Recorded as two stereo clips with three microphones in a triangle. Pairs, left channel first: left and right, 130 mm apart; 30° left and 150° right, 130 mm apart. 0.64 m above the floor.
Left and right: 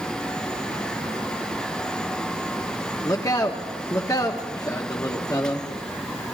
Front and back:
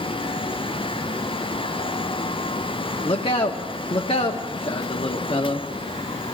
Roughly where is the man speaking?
Ahead left.